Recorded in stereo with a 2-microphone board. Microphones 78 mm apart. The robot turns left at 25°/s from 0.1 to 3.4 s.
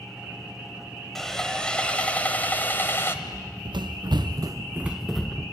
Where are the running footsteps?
75° right (ahead or behind), 2 m; by 5.4 s 15° left (ahead or behind), 1.4 m.